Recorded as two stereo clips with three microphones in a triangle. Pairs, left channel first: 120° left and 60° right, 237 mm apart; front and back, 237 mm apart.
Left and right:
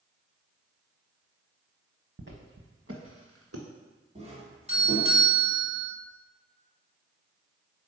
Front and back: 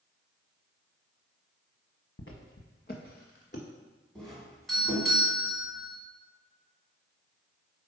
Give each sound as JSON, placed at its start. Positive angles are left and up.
{"t": 2.2, "sound": "footsteps", "azimuth_deg": -30, "distance_m": 0.9}
{"t": 4.2, "sound": "a doorbell", "azimuth_deg": -90, "distance_m": 1.8}